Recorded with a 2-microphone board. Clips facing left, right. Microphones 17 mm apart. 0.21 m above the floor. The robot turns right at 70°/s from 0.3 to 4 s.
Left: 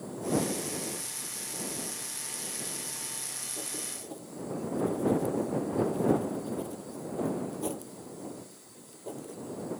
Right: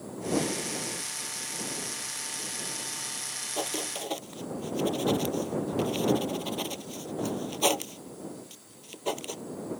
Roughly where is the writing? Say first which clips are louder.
Right 7 dB; right.